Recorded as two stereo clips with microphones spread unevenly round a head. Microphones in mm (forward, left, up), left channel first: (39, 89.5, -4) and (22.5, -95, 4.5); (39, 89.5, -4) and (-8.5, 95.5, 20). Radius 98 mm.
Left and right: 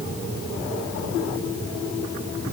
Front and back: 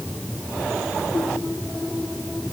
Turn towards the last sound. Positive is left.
No sound to turn to.